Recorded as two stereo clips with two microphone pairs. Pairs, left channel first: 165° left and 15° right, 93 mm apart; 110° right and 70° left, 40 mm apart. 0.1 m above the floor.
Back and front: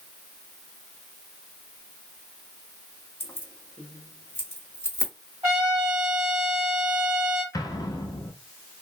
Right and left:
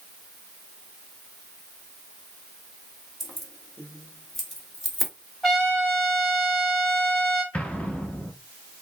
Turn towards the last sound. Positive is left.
turn(degrees=-160)